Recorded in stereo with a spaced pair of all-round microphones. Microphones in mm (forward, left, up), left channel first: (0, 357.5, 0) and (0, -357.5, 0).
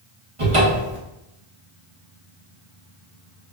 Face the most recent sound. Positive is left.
turn(degrees=-45)  # may be behind; listen again after turning